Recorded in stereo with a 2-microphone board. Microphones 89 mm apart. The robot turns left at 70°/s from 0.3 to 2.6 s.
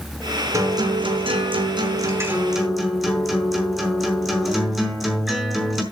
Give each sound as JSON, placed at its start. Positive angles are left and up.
{"t": 0.5, "sound": "a guitar", "azimuth_deg": -35, "distance_m": 4.5}